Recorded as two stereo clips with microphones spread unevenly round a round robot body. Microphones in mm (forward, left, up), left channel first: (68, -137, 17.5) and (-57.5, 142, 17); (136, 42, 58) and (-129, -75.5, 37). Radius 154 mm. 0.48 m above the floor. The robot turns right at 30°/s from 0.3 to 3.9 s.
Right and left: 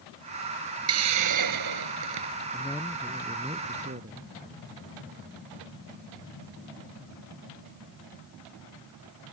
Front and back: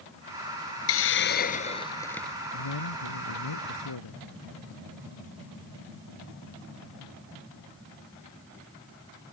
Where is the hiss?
70° left; by 2.3 s 115° left.